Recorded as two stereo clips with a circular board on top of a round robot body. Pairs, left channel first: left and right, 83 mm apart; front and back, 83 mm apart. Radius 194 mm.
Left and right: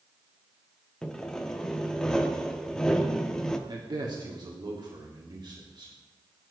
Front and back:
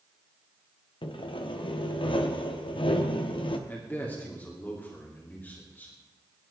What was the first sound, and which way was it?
Sawing, 10° left.